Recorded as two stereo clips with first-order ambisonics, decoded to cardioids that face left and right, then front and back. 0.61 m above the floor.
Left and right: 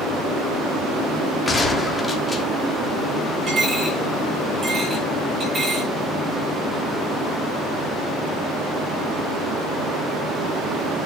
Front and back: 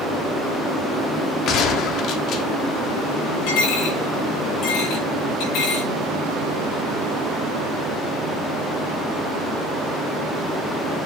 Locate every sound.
1.5 s a gunshot: 15° left, 1.5 m
3.5 s a dropped coin: 20° right, 6.5 m